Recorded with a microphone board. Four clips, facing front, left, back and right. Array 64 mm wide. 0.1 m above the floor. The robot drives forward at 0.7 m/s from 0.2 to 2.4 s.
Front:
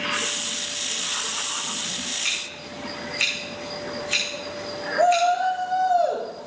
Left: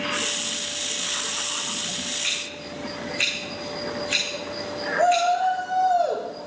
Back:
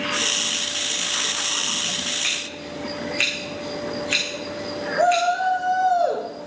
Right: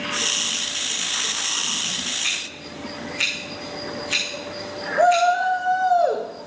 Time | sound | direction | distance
2.2 | scissors | 175° right | 8.5 m
5.0 | a shout | 110° right | 5 m